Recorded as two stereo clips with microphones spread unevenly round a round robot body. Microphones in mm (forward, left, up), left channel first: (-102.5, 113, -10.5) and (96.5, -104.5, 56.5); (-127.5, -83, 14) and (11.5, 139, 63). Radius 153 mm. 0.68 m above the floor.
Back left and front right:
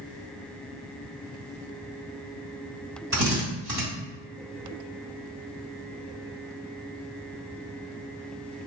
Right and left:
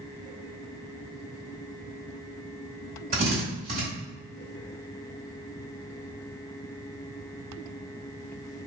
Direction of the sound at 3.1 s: 10° left.